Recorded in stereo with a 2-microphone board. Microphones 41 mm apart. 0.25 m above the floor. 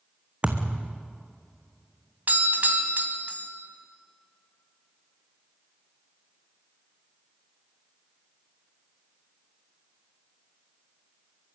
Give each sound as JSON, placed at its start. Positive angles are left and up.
{"t": 0.4, "sound": "a thud", "side_deg": -30, "distance_m": 1.7}
{"t": 2.3, "sound": "a doorbell", "side_deg": -45, "distance_m": 1.8}